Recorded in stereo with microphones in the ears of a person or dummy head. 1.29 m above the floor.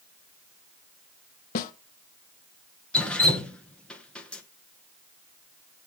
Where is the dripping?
10° left (ahead or behind), 1.1 m.